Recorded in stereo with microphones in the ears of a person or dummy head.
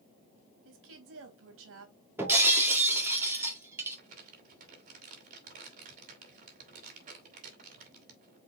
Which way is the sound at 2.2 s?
15° right (ahead or behind).